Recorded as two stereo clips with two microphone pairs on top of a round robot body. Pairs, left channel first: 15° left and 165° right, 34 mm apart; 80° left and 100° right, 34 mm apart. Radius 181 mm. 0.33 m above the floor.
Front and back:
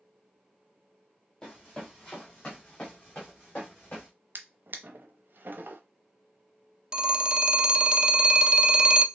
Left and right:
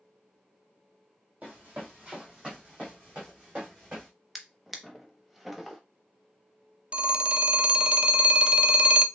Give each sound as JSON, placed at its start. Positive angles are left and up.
{"t": 1.4, "sound": "running footsteps", "azimuth_deg": -55, "distance_m": 1.2}
{"t": 4.3, "sound": "a drawer", "azimuth_deg": 165, "distance_m": 0.8}
{"t": 6.9, "sound": "a phone ringing", "azimuth_deg": -155, "distance_m": 0.7}